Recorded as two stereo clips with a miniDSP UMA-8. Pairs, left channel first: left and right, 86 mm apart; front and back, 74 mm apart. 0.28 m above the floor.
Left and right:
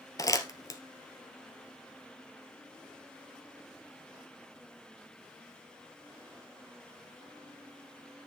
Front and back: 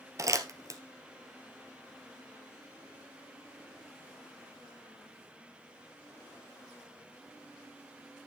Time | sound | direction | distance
0.2 | crumpling | 140° left | 1.6 m